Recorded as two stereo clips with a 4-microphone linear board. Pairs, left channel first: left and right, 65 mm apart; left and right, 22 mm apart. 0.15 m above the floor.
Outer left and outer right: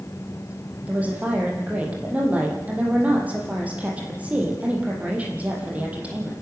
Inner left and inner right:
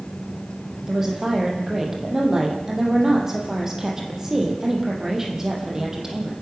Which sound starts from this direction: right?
A woman speaking, at 0.9 s.